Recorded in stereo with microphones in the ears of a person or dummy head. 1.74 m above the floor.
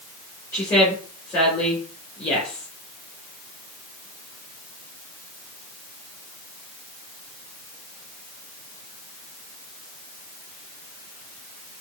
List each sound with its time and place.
0.5 s a woman speaking: 15° left (ahead or behind), 2 m